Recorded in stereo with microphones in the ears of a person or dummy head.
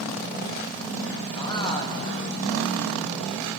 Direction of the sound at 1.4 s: 20° left (ahead or behind).